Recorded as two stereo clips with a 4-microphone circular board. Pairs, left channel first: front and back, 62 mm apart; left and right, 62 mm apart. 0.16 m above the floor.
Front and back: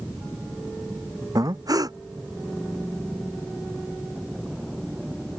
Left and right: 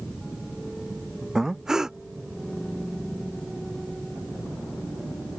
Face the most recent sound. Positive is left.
turn(degrees=-170)